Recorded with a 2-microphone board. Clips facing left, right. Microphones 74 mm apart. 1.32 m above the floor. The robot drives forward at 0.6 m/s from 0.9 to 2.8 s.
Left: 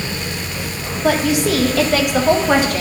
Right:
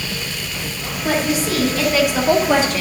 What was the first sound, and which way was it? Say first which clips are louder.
A woman speaking: left 3 dB; 80° left.